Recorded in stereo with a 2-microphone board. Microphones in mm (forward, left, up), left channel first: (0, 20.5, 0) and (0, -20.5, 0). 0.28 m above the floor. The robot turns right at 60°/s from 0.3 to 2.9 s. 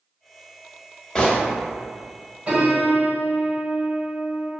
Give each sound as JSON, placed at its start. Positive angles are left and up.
{"t": 1.1, "sound": "a gunshot", "side_deg": 20, "distance_m": 0.5}
{"t": 2.5, "sound": "a piano", "side_deg": -35, "distance_m": 0.9}